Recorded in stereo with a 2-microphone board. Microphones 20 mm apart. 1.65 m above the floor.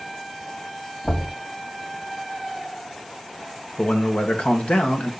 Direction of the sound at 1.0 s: 70° left (ahead or behind).